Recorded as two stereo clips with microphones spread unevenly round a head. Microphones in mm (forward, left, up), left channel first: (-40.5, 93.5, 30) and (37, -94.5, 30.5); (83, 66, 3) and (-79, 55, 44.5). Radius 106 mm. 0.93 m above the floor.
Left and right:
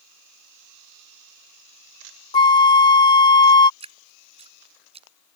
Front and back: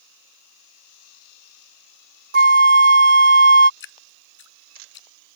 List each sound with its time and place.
2.3 s a flute: straight behind
3.8 s dripping: 5° right